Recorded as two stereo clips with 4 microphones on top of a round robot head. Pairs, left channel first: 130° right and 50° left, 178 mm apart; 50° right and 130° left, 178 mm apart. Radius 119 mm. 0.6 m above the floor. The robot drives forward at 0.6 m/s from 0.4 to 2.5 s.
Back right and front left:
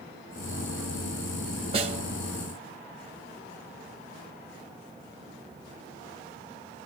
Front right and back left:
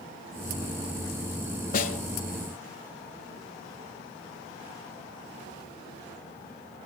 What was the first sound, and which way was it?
A snare drum, 10° right.